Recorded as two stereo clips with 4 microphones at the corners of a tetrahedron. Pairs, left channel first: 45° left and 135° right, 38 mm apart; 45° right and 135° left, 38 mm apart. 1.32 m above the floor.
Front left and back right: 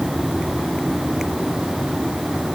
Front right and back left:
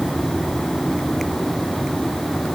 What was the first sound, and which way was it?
Only background noise.